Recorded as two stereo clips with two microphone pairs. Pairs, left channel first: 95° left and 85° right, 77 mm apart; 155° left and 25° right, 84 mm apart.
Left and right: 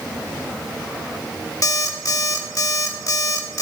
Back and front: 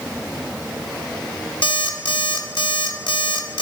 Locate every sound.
1.6 s an alarm clock: 140° left, 0.8 m